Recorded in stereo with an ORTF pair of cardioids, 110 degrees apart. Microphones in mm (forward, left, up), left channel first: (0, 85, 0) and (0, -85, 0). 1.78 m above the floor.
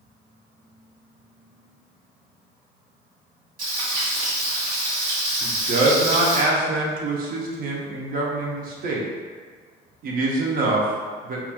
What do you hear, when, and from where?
3.6 s frying: 55° right, 1.3 m
5.4 s a man speaking: 55° right, 0.7 m